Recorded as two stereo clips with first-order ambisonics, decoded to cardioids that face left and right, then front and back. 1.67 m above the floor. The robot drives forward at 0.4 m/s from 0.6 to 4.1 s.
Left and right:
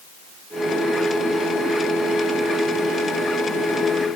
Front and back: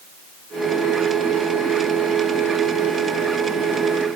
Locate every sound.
Only background noise.